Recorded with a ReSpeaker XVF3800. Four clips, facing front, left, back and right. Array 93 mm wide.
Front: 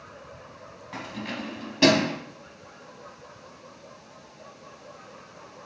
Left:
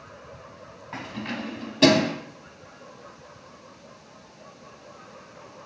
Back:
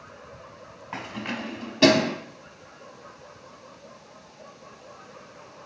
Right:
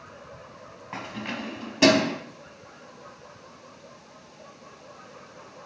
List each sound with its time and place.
0.9 s keys jangling: 165° right, 0.9 m; by 2.1 s 45° right, 0.8 m